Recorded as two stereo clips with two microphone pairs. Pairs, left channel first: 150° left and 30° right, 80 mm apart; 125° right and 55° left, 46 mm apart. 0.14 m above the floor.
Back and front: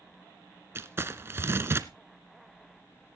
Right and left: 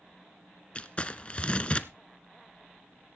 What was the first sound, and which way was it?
Crumpling, 75° right.